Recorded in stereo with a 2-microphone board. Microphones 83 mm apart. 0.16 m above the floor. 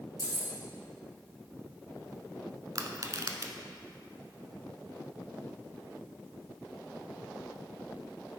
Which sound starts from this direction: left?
Keys jangling, at 0.2 s.